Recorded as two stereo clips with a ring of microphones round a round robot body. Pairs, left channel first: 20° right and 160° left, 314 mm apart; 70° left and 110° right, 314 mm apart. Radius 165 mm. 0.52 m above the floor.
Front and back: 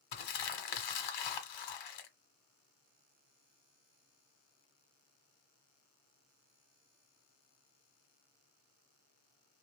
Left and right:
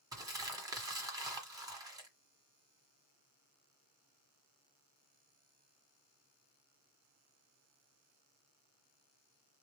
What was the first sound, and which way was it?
Crumpling, 30° right.